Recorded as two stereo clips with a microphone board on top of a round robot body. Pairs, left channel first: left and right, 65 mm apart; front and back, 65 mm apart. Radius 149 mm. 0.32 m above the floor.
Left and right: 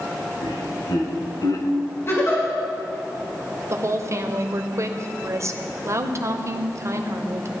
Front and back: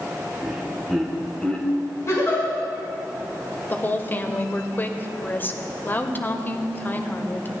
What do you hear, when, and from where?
0.4 s laughter: 95° left, 2.5 m; by 1.7 s 70° left, 1.9 m
2.1 s a giggle: 40° left, 5.5 m
3.7 s a woman speaking: 55° right, 1.6 m